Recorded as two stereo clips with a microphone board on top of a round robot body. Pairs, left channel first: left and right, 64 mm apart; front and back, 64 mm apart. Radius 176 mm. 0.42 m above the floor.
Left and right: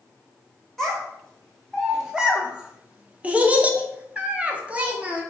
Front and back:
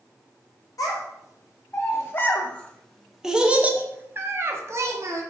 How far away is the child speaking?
About 1.4 m.